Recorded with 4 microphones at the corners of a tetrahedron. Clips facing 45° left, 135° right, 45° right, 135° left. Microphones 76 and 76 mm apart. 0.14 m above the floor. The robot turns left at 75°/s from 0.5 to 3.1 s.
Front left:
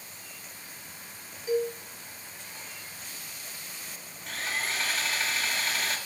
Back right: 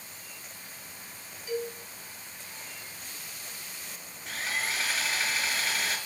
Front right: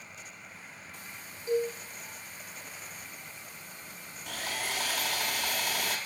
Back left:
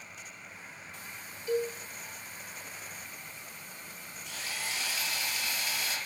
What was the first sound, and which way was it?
A cowbell, 10° left.